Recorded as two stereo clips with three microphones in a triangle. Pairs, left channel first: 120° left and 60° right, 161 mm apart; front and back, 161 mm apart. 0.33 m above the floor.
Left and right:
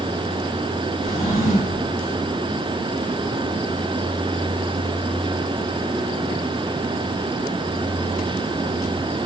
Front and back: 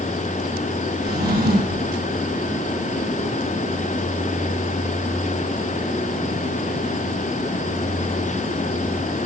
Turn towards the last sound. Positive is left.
turn(degrees=170)